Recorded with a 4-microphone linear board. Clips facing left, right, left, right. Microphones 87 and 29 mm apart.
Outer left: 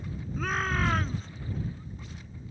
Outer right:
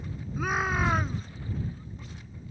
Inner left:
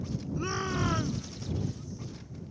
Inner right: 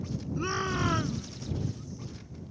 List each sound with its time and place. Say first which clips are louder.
0.4 s a shout: outer right 2 dB, inner right 2 dB; 10° right (ahead or behind)